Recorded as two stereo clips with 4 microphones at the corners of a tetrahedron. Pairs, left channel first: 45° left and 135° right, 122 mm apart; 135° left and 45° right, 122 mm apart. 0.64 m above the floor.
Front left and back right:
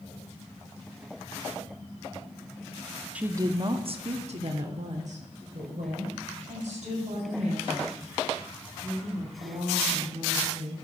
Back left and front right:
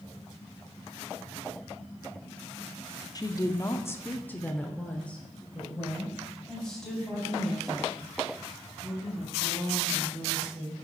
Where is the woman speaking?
150° left, 0.6 m; by 10.8 s 135° right, 6 m.